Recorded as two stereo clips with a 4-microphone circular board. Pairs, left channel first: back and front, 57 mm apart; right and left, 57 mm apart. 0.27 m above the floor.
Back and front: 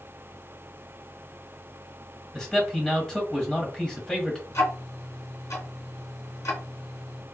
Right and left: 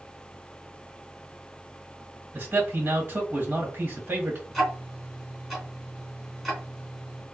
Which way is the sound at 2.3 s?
110° left.